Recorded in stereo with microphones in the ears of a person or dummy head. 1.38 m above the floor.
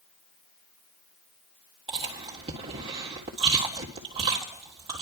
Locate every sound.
1.9 s chewing: 30° right (ahead or behind), 1.9 m